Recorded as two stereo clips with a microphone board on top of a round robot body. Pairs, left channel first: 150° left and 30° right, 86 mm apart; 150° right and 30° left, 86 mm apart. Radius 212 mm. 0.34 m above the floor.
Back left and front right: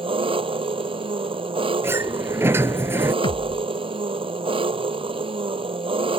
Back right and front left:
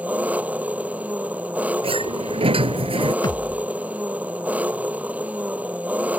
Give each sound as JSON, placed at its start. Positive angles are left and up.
{"t": 0.0, "sound": "an engine running", "azimuth_deg": -45}
{"t": 1.8, "sound": "a sliding door", "azimuth_deg": 35}
{"t": 3.2, "sound": "a thud", "azimuth_deg": 170}